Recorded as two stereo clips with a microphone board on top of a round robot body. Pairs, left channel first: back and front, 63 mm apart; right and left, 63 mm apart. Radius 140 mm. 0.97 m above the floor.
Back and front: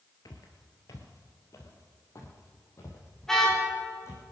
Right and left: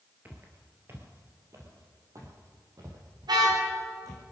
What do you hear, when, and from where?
0.2 s footsteps: 155° left, 1.3 m; by 4.2 s 130° left, 3.5 m
3.2 s a car horn: 95° left, 4.5 m